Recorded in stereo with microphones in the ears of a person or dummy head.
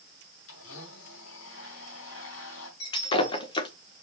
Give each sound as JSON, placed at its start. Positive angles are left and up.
{"t": 0.5, "sound": "a blender", "side_deg": 80, "distance_m": 4.0}
{"t": 2.8, "sound": "breaking glass", "side_deg": 25, "distance_m": 1.3}